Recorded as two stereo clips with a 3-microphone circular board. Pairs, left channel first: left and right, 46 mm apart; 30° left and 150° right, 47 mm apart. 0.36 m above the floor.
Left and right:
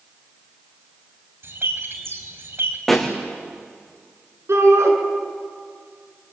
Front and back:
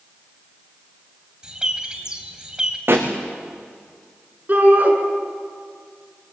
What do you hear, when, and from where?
1.4 s a bird: 80° right, 2.5 m
2.9 s a pop: 175° left, 4.5 m
4.5 s a shout: 100° right, 5 m